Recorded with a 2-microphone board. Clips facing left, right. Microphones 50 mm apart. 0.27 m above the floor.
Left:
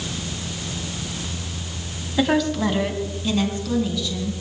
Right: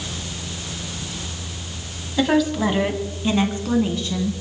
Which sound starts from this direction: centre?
A woman speaking, at 2.2 s.